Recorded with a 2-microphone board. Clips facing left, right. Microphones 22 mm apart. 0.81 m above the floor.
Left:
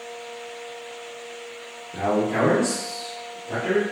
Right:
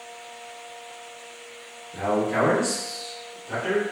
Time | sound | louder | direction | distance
1.9 | a man speaking | left 1 dB | 20° left (ahead or behind) | 0.7 m